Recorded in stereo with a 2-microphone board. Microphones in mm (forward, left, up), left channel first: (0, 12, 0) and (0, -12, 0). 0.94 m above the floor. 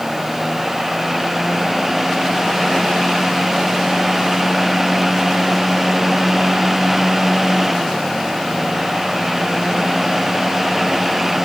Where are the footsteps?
I don't hear footsteps.